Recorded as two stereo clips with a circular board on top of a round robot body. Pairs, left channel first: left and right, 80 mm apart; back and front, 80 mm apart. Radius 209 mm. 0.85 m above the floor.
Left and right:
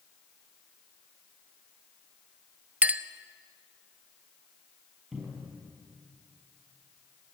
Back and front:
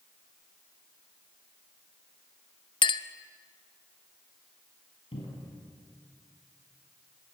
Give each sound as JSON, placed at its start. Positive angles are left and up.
{"t": 2.8, "sound": "a clink", "azimuth_deg": -160, "distance_m": 0.7}
{"t": 5.1, "sound": "a cupboard door", "azimuth_deg": -175, "distance_m": 4.5}